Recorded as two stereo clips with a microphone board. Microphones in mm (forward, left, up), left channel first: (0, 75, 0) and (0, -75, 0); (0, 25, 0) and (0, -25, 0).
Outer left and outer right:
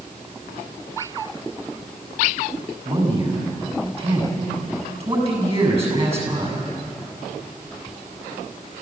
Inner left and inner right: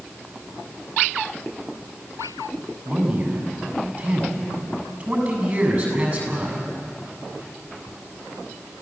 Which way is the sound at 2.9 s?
40° right (ahead or behind).